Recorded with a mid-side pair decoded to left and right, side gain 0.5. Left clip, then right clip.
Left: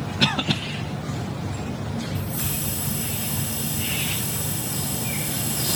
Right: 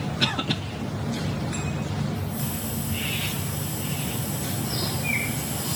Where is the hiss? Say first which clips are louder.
Left 2 dB; 55° left, 1.3 m.